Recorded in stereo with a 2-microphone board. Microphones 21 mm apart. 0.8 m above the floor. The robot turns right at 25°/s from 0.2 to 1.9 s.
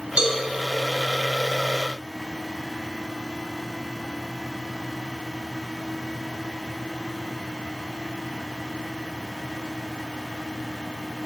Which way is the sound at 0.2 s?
50° right (ahead or behind).